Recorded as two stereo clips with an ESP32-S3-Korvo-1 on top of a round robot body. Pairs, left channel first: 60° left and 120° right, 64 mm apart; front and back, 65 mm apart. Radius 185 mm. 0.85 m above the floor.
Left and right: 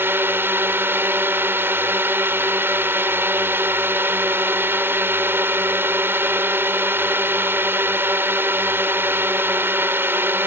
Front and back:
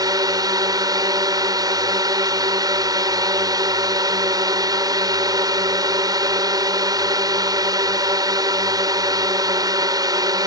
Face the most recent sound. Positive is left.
turn(degrees=-175)